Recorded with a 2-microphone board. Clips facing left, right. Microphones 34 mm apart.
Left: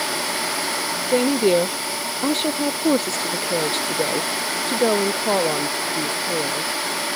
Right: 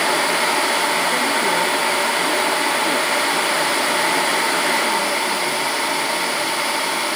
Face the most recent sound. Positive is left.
turn(degrees=75)  # may be behind; listen again after turning